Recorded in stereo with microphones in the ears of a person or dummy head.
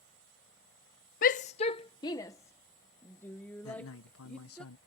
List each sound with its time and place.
1.2 s a shout: 45° left (ahead or behind); by 4.6 s 5° left (ahead or behind)
3.6 s a man speaking: 70° left (ahead or behind)